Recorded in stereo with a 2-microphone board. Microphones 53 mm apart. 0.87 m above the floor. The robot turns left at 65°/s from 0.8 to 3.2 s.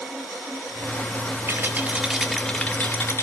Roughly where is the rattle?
Behind right.